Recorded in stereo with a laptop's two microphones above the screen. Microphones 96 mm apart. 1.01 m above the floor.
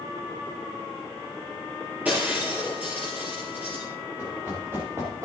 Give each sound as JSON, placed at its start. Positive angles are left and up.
{"t": 2.0, "sound": "breaking glass", "side_deg": -15, "distance_m": 6.0}
{"t": 4.2, "sound": "running footsteps", "side_deg": -20, "distance_m": 4.0}